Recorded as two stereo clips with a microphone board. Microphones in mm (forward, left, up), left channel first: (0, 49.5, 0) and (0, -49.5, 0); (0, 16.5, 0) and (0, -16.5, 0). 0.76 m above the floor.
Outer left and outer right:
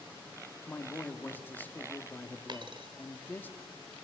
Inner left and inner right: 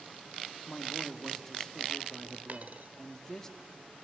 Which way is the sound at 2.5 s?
50° right (ahead or behind).